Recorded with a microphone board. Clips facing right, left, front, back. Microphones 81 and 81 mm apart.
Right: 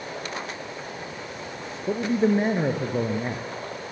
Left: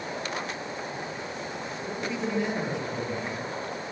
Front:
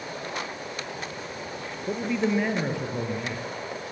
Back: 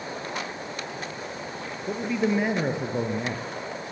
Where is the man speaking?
85° right, 1.9 m; by 3.5 s 130° right, 2.5 m.